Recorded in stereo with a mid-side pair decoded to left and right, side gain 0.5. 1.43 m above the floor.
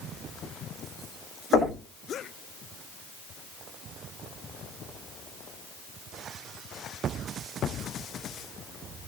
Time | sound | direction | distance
1.5 | knocking | 70° left | 9 m